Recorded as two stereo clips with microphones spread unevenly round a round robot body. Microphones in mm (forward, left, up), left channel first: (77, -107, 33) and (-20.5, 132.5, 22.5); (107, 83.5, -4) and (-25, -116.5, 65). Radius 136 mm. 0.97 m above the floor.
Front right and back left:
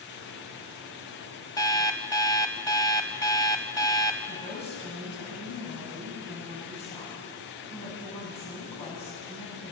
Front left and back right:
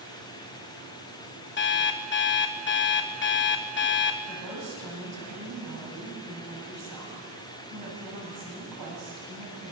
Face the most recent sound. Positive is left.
turn(degrees=-135)